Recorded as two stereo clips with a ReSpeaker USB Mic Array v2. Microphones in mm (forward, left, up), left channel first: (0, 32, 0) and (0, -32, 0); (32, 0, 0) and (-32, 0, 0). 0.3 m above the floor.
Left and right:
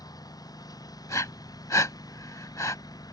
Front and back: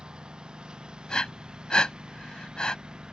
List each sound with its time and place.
0.0 s a lawn mower: 105° left
1.1 s breathing: 75° left